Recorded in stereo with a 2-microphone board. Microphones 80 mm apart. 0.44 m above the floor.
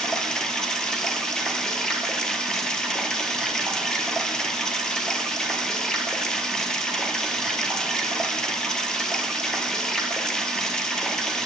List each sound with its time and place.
0.0 s running water: 10° left (ahead or behind), 0.8 m